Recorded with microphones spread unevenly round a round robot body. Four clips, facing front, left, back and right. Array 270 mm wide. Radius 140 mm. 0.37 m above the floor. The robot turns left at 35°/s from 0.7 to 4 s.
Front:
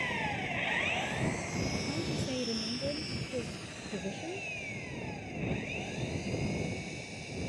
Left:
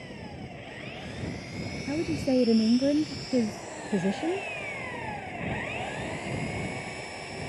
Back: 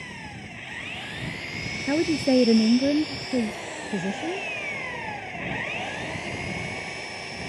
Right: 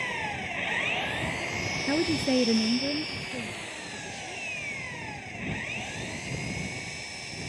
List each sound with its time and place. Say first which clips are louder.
0.0 s an engine running: right 7 dB, front 5 dB; 75° right; by 7.5 s 170° left
1.9 s a woman speaking: right 1 dB, back 14 dB; 155° right; by 4.5 s 130° left